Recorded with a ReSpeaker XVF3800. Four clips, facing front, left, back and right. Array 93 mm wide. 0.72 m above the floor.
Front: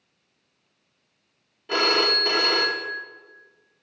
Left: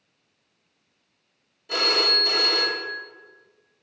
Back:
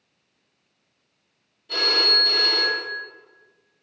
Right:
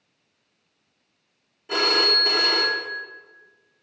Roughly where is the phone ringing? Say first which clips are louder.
Right 2 dB, front 3 dB; ahead right.